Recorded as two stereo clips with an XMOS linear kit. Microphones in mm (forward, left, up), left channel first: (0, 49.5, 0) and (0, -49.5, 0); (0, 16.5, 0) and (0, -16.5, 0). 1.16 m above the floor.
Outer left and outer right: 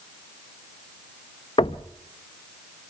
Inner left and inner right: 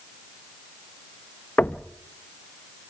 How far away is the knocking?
About 0.6 m.